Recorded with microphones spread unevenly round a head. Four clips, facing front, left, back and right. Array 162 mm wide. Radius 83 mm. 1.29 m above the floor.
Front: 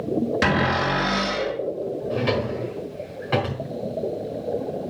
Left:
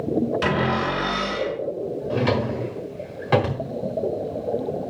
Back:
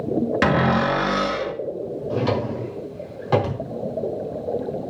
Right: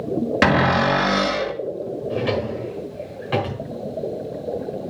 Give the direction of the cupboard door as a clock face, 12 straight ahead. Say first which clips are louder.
Right 5 dB, back 5 dB; 3 o'clock.